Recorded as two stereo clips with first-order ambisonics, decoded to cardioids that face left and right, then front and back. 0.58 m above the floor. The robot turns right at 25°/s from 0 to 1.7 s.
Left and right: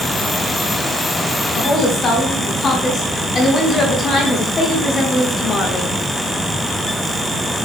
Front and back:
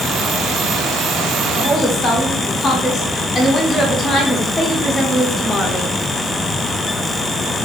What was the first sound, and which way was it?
A woman speaking, 65° left.